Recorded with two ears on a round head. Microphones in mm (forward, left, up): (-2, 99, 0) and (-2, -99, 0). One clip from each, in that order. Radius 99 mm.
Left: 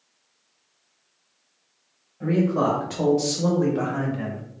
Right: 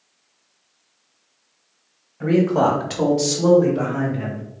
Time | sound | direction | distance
2.2 | a man speaking | 55° right (ahead or behind) | 0.8 m